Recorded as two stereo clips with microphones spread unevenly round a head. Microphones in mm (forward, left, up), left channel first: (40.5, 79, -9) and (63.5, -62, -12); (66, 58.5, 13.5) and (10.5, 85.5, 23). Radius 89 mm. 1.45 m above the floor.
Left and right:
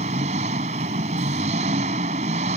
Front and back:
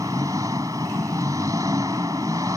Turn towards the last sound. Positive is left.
turn(degrees=-135)